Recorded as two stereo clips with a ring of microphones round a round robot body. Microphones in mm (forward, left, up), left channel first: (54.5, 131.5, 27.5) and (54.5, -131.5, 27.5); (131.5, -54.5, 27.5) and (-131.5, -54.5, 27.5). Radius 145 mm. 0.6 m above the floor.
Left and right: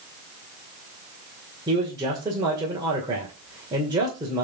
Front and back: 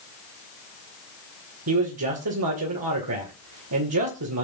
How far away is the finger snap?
No finger snap in this recording.